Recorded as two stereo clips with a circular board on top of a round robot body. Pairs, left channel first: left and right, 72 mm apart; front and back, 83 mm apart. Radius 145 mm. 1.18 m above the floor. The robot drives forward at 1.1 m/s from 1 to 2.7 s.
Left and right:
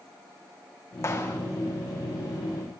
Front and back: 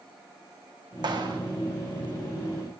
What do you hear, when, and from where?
1.0 s a clap: 145° left, 2 m; by 1.4 s 150° left, 2.5 m